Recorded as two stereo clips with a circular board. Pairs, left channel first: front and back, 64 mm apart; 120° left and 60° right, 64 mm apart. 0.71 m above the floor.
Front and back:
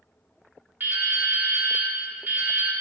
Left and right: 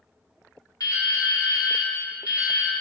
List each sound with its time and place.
0.8 s dripping: 125° left, 0.9 m